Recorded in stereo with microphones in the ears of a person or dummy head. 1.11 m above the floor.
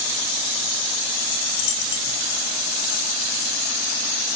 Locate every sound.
1.5 s a dropped coin: 65° left (ahead or behind)